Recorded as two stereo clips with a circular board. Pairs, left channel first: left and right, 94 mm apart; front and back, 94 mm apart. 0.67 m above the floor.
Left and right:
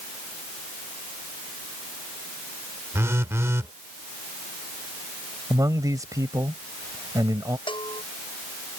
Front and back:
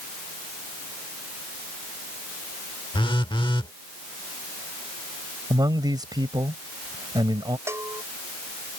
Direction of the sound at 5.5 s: 140° right.